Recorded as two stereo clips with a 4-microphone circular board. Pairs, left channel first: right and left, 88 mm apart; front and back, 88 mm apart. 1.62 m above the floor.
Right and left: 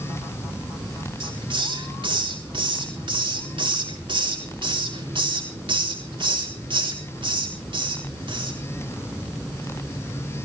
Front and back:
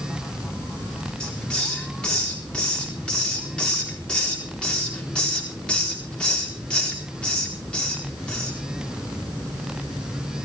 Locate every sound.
1.2 s a hiss: 75° left, 4 m